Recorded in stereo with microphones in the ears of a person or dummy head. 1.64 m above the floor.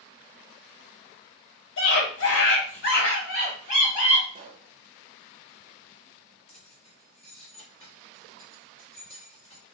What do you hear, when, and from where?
1.8 s a scream: 80° left, 1.2 m; by 4.2 s 35° left (ahead or behind), 1.8 m
4.3 s a pop: 40° right (ahead or behind), 0.6 m
6.5 s keys jangling: 35° left (ahead or behind), 1.4 m